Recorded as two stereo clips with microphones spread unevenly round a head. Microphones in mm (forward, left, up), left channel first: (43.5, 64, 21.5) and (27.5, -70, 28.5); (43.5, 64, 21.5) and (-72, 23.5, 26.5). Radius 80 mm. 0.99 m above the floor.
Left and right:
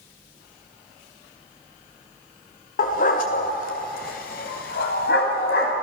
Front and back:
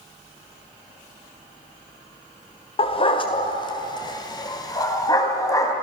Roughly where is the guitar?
No guitar in this recording.